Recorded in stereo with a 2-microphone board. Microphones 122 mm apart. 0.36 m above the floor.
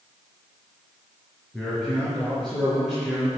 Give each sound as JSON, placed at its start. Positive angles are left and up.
{"t": 1.5, "sound": "a man speaking", "side_deg": 0, "distance_m": 5.5}